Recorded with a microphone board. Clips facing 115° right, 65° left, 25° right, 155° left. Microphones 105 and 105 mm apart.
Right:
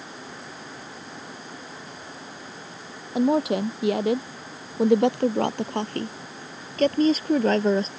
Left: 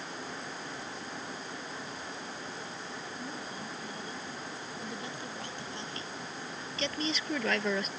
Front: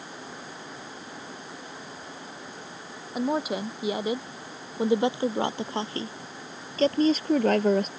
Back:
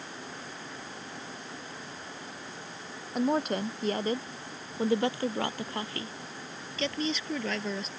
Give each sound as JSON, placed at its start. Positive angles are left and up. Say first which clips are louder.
{"t": 3.1, "sound": "a woman speaking", "louder": "right 19 dB, even", "azimuth_deg": -105}